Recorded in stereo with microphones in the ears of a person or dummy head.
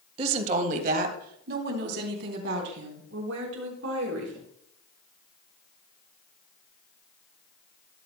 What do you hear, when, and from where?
0.2 s a woman speaking: 30° right (ahead or behind), 1.9 m; by 4.5 s 75° right (ahead or behind), 5 m